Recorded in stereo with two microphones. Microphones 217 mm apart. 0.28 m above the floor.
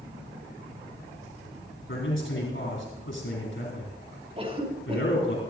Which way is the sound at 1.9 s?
60° left (ahead or behind).